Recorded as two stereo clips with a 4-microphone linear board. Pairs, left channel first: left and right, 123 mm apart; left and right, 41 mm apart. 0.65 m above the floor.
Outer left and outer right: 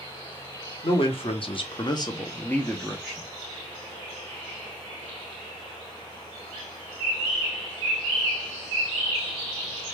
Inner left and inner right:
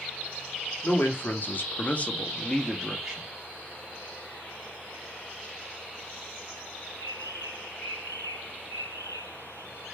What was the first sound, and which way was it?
A man speaking, 45° left (ahead or behind).